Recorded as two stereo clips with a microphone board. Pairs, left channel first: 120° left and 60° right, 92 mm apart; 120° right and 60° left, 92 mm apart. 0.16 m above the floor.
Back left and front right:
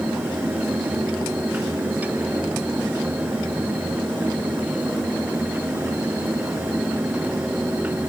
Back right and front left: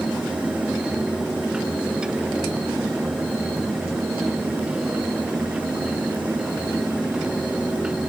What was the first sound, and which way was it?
Only background noise.